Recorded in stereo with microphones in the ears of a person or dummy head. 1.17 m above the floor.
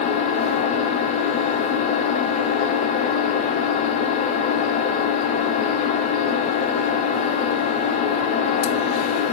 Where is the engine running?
35° left (ahead or behind), 1.4 m.